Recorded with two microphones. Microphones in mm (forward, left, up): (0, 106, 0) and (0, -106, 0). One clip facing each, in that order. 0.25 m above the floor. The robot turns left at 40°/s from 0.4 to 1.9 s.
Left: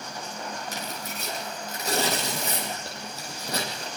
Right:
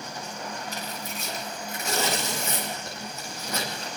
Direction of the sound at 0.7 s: 80° left.